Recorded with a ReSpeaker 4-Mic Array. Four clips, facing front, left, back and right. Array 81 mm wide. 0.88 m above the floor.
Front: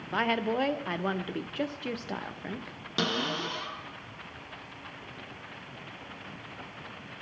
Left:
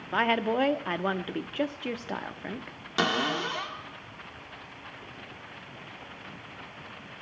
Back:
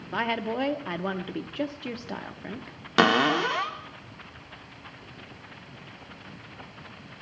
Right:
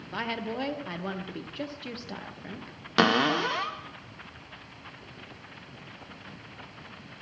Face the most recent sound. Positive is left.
turn(degrees=-155)